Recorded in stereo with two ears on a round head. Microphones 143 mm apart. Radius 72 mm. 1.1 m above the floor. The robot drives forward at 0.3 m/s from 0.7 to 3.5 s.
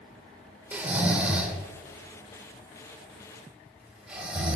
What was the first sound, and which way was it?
Snoring, 10° right (ahead or behind).